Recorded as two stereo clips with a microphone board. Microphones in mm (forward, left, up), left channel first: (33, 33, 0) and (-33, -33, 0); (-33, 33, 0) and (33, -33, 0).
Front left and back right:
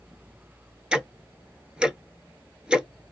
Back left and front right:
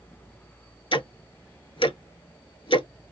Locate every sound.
0.9 s ticking: 145° left, 0.7 m